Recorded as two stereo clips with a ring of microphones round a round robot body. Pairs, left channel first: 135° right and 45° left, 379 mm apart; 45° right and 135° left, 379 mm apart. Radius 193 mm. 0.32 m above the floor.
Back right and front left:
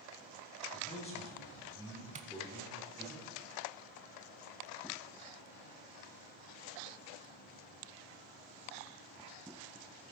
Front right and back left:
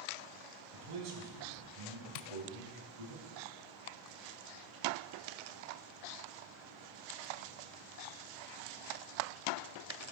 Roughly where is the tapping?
Ahead right.